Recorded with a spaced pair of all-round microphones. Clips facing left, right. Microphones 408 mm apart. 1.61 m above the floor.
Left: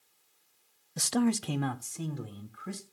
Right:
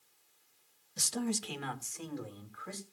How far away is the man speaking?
About 0.7 m.